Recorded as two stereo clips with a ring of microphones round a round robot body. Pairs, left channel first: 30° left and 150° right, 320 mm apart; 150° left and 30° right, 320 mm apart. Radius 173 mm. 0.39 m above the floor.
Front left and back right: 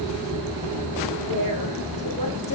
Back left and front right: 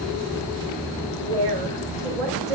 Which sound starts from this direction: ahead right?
A woman speaking, at 1.2 s.